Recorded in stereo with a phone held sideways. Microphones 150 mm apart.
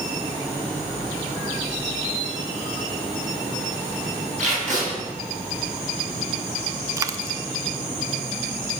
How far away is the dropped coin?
About 0.6 m.